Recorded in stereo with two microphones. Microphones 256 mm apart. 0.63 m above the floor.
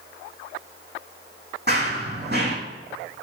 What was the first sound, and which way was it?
Running footsteps, 45° right (ahead or behind).